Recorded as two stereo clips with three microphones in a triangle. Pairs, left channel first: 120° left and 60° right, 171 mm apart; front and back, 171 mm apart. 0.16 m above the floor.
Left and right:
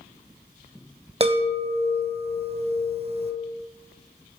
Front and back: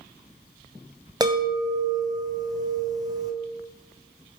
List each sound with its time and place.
1.2 s a chime: 115° right, 1.1 m